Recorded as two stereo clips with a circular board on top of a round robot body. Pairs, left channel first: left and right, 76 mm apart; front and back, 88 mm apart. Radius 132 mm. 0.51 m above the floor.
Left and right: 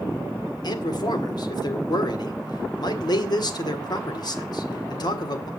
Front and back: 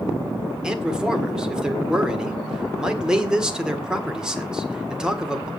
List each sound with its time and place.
0.6 s a man speaking: 100° left, 1.8 m